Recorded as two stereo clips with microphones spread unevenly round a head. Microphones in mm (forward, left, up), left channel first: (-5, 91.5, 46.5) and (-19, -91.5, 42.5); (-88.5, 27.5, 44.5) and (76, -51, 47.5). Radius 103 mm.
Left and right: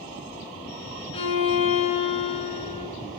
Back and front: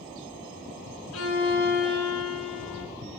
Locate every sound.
1.1 s a violin: 145° left, 2.5 m